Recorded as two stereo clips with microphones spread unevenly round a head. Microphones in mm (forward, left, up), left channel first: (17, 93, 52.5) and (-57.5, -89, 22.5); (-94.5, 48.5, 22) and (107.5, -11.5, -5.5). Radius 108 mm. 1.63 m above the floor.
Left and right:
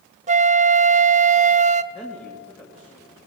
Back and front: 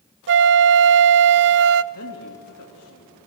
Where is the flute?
55° right, 0.5 m.